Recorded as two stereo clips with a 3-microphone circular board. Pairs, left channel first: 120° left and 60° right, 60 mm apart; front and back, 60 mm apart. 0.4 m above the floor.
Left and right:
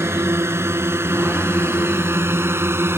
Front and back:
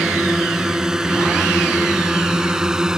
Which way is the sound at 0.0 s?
100° right.